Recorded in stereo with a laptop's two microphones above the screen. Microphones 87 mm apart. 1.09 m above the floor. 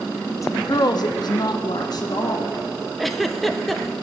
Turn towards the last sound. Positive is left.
turn(degrees=0)  # may be behind; listen again after turning